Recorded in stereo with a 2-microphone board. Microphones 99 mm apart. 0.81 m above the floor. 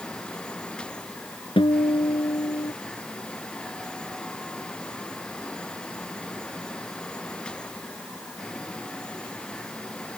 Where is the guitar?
70° left (ahead or behind).